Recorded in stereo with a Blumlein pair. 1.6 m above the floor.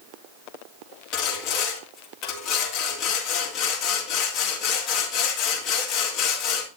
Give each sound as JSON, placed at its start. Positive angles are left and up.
{"t": 1.1, "sound": "sawing", "azimuth_deg": 35, "distance_m": 3.0}